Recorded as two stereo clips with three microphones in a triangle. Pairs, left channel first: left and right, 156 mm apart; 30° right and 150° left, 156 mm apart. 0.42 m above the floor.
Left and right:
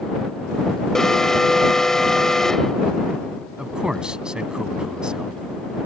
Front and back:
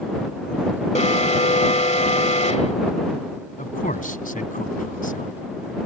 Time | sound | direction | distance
0.9 | an alarm | 5° left | ?
3.6 | a man speaking | 5° right | ?